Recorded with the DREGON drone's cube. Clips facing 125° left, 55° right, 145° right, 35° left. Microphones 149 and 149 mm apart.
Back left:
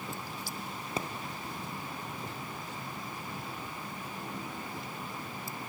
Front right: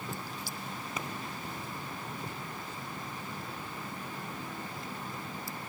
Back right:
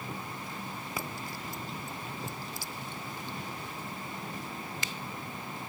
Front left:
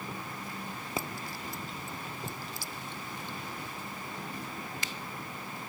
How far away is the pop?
About 1.1 m.